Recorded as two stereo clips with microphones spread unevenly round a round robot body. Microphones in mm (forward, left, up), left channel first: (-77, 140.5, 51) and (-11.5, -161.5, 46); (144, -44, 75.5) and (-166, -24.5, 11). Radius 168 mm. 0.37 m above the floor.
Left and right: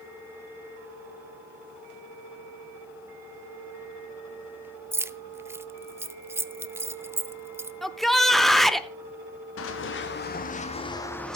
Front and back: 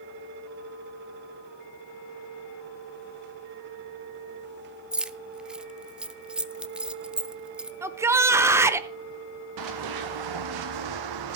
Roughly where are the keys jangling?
Behind right.